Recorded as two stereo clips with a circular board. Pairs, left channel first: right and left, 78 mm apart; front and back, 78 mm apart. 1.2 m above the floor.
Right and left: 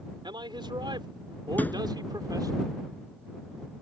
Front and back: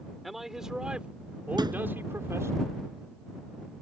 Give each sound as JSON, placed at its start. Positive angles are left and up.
{"t": 0.2, "sound": "a man speaking", "azimuth_deg": 90}
{"t": 1.6, "sound": "a thud", "azimuth_deg": -160}